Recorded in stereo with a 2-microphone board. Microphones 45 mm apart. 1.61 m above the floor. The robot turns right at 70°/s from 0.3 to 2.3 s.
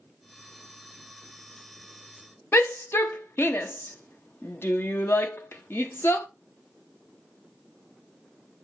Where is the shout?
60° left (ahead or behind), 0.6 m.